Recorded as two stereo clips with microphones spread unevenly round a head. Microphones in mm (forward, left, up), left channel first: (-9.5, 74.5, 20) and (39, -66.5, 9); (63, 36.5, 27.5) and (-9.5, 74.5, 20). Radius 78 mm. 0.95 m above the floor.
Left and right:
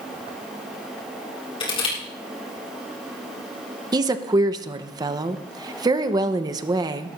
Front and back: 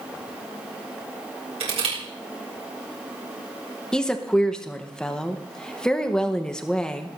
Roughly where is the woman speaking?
Right.